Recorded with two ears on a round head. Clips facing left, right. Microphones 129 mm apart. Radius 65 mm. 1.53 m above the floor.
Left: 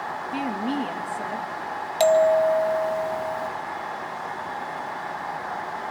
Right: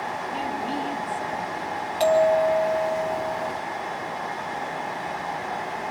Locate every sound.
0.3 s a woman speaking: 70° left (ahead or behind), 2.5 m
2.0 s a bell: 50° left (ahead or behind), 1.6 m